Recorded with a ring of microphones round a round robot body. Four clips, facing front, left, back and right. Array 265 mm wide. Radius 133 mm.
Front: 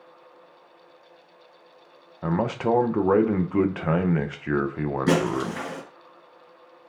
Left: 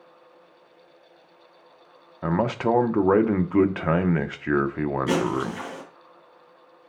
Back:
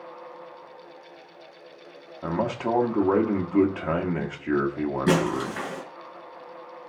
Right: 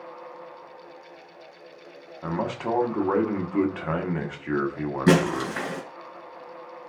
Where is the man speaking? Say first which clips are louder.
Left 5 dB, front 2 dB; 70° left, 0.9 m.